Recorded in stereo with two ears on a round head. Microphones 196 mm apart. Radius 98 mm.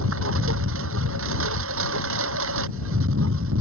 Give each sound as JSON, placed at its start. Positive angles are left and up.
{"t": 0.0, "sound": "a lawn mower", "side_deg": -65}